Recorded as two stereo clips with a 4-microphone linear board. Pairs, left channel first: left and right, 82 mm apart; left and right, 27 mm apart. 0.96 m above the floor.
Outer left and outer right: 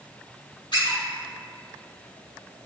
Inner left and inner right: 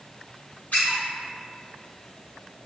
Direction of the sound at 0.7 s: 85° left.